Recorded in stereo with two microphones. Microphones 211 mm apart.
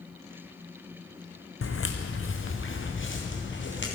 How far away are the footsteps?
About 1.0 m.